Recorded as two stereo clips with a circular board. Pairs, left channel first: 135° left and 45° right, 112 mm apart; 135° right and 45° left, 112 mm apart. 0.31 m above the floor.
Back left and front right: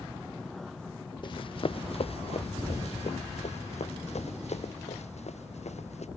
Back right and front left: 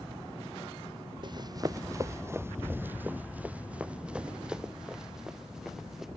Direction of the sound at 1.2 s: 90° left.